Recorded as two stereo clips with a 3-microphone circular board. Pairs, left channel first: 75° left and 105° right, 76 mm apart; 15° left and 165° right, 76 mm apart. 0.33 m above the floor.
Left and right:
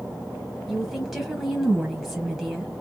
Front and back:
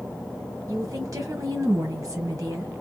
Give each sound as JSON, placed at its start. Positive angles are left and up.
{"t": 0.7, "sound": "a woman speaking", "azimuth_deg": 170, "distance_m": 1.6}